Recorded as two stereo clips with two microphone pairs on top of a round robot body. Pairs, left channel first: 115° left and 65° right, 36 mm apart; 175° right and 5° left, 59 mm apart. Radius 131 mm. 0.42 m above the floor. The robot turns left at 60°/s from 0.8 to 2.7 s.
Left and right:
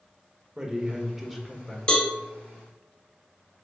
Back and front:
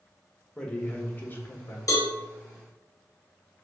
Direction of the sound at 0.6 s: 105° right.